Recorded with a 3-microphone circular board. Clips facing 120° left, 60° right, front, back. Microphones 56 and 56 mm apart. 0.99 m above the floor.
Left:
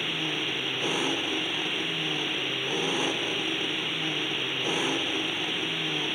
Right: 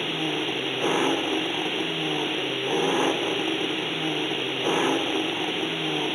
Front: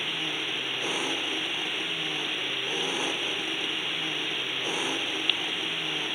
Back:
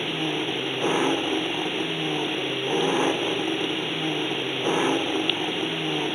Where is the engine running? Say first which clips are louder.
Right 4 dB, back 5 dB; 120° right.